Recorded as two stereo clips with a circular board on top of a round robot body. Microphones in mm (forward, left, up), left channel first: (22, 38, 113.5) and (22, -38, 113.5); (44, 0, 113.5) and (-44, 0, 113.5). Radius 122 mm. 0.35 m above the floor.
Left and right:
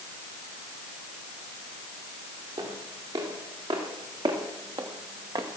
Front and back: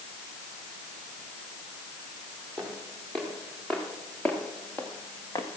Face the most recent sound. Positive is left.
turn(degrees=-50)